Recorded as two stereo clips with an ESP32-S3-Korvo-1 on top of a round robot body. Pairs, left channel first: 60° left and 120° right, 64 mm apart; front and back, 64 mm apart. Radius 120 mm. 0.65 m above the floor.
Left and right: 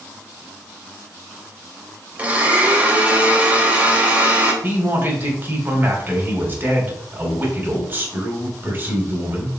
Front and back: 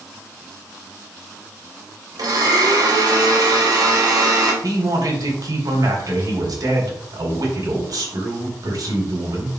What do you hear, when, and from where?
2.2 s a blender: 175° left, 3 m
4.6 s a man speaking: straight behind, 3.5 m